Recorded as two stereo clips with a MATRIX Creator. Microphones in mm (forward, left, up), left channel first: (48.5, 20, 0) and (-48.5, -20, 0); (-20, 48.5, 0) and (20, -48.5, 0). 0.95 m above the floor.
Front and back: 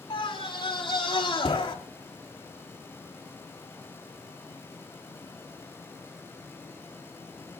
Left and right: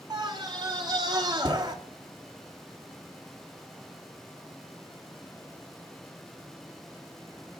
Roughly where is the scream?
Ahead.